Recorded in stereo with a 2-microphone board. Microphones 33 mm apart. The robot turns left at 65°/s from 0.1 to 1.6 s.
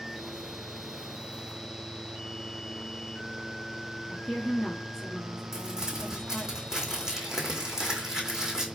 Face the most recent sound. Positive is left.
turn(degrees=-20)  # may be behind; listen again after turning